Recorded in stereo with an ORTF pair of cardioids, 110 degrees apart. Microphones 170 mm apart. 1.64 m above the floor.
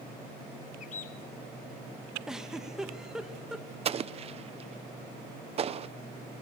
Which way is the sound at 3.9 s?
40° right.